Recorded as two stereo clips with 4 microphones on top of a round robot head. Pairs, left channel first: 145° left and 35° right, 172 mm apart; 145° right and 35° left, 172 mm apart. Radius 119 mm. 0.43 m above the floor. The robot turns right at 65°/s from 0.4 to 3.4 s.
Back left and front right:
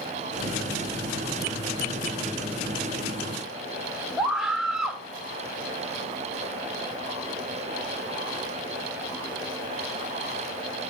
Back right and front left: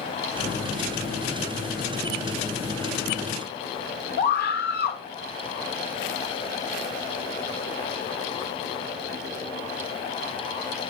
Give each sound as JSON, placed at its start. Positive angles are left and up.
{"t": 4.2, "sound": "a scream", "azimuth_deg": -125, "distance_m": 1.9}